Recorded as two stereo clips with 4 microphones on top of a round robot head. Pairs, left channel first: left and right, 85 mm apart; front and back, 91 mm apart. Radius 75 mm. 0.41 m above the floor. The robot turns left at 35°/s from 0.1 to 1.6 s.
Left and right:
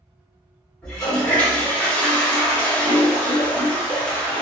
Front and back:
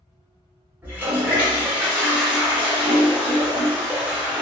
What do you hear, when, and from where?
0.8 s a toilet flushing: 165° left, 1.4 m; by 4.4 s 140° left, 1.4 m